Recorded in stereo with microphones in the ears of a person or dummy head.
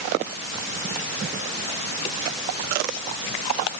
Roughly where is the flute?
No flute in this recording.